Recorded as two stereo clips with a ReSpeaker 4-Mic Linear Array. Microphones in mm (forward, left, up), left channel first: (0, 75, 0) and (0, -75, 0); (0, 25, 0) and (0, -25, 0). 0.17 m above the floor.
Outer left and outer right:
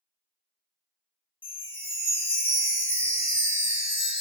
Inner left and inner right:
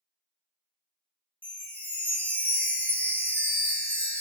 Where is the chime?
35° left (ahead or behind), 0.8 m.